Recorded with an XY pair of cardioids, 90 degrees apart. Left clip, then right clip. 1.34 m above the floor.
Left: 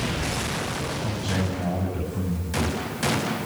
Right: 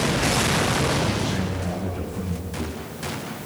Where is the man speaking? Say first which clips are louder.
Right 3 dB; 40° left, 9.5 m.